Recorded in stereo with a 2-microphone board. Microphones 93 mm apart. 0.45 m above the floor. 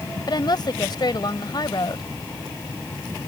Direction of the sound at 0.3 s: 50° left (ahead or behind).